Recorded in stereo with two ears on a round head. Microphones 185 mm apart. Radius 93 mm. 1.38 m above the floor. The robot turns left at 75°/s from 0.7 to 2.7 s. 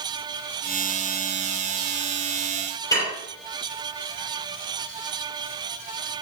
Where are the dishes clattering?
20° left (ahead or behind), 3.5 m.